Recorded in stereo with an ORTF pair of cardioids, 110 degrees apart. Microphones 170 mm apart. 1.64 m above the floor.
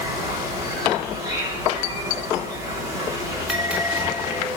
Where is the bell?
5° right, 3.5 m.